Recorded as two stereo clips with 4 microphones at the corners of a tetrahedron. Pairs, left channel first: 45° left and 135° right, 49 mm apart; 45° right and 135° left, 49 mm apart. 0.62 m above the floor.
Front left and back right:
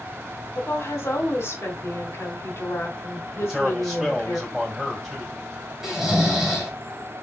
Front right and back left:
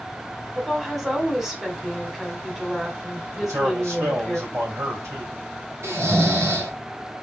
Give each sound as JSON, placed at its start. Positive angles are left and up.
{"t": 0.6, "sound": "a woman speaking", "azimuth_deg": 55, "distance_m": 2.0}
{"t": 3.4, "sound": "a man speaking", "azimuth_deg": 140, "distance_m": 3.5}
{"t": 5.8, "sound": "snoring", "azimuth_deg": 150, "distance_m": 1.8}